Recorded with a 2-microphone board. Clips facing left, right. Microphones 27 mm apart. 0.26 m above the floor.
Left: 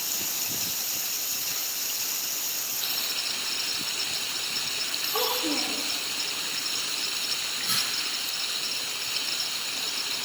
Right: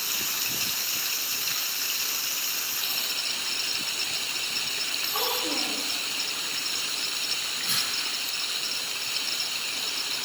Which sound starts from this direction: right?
Running water, at 0.0 s.